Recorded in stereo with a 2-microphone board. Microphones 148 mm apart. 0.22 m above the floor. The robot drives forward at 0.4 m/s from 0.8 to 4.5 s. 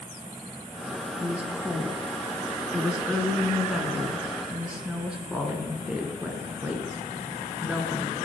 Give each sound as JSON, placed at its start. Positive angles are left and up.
{"t": 1.2, "sound": "a woman speaking", "side_deg": -10, "distance_m": 1.5}